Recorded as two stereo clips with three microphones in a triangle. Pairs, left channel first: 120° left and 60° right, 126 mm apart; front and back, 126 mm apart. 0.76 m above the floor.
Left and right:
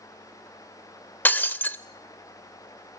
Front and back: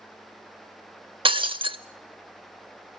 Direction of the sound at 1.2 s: 170° right.